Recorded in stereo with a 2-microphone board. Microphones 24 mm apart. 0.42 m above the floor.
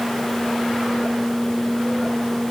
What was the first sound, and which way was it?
Only background noise.